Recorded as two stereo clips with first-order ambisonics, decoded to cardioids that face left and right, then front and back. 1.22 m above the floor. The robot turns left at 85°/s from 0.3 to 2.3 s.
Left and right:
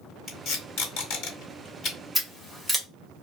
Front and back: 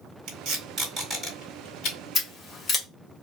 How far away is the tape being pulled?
About 1.9 m.